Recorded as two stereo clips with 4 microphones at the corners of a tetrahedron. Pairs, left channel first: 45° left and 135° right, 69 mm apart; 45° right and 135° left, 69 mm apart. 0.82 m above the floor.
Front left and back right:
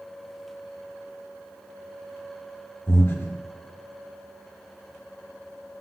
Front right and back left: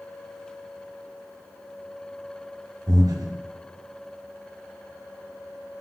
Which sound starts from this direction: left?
Breathing, at 2.9 s.